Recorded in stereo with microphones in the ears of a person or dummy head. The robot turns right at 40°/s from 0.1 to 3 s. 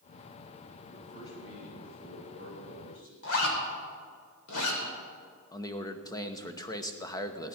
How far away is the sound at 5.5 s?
About 1.1 m.